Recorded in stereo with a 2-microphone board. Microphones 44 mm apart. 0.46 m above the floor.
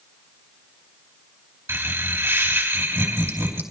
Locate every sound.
1.7 s laughter: 65° right (ahead or behind), 3 m